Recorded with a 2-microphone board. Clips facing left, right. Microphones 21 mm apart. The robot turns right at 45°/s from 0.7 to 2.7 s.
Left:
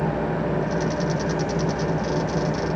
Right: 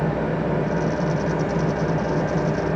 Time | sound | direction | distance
0.0 | an engine running | 175° right | 1.7 m